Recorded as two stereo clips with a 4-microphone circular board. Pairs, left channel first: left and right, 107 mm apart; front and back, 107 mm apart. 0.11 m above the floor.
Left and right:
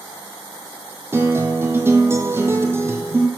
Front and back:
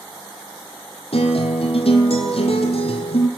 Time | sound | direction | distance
1.1 | a guitar | 25° right | 1.2 m